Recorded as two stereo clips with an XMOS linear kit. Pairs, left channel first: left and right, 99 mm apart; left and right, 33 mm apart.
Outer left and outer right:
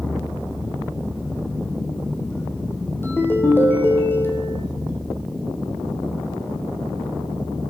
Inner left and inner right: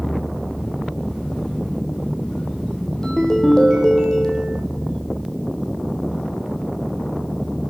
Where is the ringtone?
20° left (ahead or behind), 2.0 m.